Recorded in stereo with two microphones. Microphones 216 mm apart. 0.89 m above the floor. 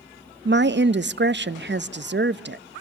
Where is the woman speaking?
55° right (ahead or behind), 0.6 m.